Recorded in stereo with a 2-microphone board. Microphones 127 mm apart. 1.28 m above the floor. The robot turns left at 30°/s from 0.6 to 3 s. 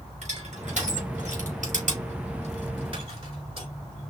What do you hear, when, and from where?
0.2 s crushing: 65° right (ahead or behind), 4.5 m; by 3.7 s 45° right (ahead or behind), 4.5 m